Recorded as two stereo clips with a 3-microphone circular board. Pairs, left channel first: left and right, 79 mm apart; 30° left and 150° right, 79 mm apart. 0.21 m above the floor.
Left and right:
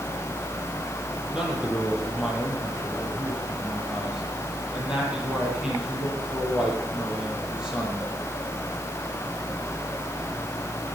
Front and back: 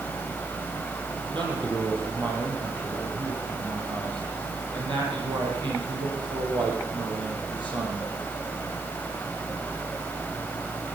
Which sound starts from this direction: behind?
A man speaking, at 1.3 s.